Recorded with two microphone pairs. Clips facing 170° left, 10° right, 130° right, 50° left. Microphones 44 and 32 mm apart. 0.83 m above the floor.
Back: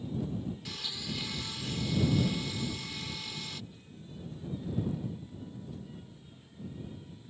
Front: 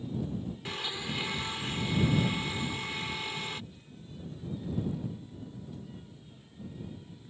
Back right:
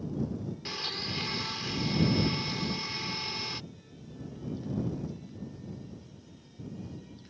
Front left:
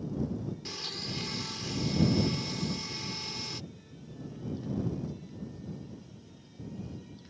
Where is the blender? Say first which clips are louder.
Front 4 dB, back right 3 dB; 65° right.